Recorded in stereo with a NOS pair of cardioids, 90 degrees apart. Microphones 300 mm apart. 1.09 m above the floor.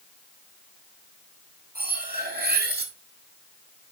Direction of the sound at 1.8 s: 30° right.